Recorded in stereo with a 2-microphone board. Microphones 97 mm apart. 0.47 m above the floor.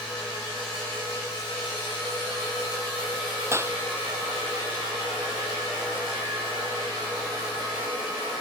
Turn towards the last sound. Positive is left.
turn(degrees=-25)  # may be behind; listen again after turning